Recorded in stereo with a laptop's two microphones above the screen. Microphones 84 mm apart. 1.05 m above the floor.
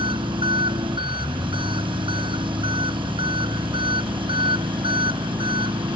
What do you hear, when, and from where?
0.0 s an engine running: 80° right